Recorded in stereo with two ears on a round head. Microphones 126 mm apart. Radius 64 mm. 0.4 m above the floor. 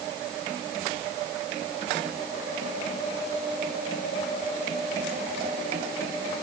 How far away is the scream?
I don't hear a scream.